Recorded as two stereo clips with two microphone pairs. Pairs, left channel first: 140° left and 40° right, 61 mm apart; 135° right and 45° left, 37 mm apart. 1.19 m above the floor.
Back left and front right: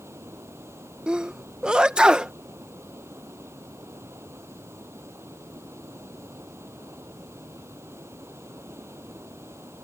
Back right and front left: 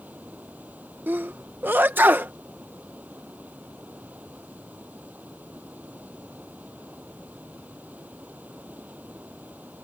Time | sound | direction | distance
0.0 | running water | straight ahead | ?
1.1 | a sneeze | 30° left | ?